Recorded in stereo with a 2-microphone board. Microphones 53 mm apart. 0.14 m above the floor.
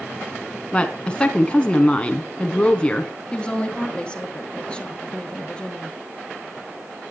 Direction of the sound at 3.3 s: 20° left (ahead or behind).